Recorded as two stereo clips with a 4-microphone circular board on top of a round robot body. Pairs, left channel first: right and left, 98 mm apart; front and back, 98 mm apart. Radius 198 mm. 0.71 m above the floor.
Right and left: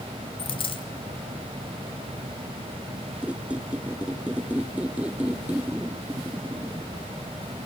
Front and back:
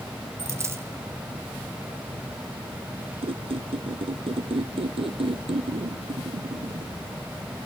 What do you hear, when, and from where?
0.4 s a dropped coin: 120° right, 2.5 m
3.2 s a squeak: 165° left, 1.3 m